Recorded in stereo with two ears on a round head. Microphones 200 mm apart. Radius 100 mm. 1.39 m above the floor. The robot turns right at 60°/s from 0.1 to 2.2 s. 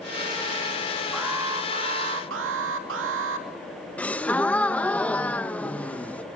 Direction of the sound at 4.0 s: 5° left (ahead or behind).